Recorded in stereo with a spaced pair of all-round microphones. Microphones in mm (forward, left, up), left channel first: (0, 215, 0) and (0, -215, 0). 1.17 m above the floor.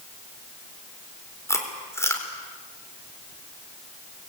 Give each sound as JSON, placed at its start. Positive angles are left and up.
{"t": 1.5, "sound": "chewing", "side_deg": 5, "distance_m": 3.5}